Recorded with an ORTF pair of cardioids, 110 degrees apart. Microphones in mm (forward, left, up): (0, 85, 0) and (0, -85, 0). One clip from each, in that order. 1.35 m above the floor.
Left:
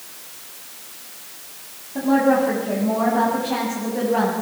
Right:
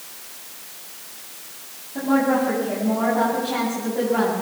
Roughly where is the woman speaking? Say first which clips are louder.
Left 3 dB; ahead.